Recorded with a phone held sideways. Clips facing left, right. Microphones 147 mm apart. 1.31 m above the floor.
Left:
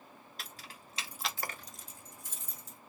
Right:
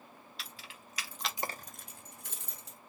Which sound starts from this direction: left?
Keys jangling, at 0.4 s.